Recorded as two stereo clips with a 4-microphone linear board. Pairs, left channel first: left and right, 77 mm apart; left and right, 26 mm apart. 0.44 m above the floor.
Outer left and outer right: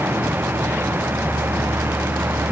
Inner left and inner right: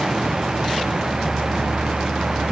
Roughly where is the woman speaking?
No woman speaking in this recording.